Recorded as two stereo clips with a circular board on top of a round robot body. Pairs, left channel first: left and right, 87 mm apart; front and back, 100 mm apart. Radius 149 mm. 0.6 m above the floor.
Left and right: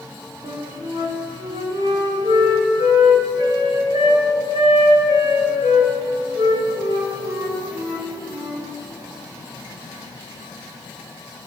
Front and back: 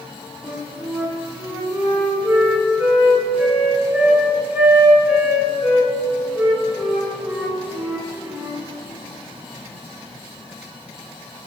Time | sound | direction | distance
0.4 | a flute | 105° right | 2.5 m